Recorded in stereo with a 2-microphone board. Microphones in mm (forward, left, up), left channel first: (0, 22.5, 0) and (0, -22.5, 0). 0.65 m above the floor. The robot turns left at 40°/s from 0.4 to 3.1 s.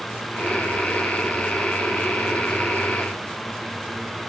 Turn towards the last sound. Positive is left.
No sound to turn to.